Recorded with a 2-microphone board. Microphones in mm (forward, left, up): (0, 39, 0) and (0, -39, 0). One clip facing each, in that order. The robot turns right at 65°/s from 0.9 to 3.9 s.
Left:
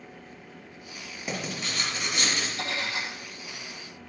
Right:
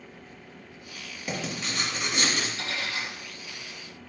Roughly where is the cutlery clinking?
Behind left.